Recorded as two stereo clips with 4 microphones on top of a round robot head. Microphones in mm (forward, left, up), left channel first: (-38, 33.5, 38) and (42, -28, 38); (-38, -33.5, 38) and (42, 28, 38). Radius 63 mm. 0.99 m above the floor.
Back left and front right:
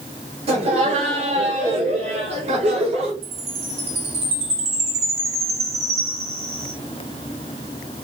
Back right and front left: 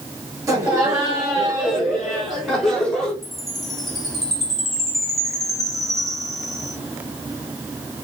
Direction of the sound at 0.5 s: 25° right.